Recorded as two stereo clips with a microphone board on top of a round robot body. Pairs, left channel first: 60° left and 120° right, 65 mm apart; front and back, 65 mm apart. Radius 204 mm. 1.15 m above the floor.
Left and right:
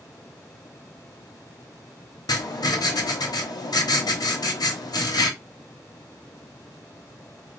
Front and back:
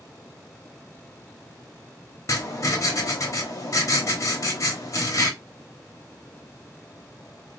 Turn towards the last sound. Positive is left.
turn(degrees=40)